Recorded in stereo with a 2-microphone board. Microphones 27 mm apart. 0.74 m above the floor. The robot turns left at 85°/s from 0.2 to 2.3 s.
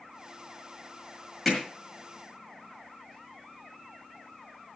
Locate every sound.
1.4 s hammering: 5° left (ahead or behind), 6 m; by 1.6 s 15° left (ahead or behind), 6 m